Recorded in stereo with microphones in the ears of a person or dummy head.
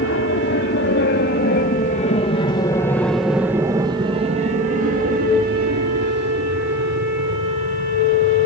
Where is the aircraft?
65° left (ahead or behind); by 8.5 s 70° right (ahead or behind).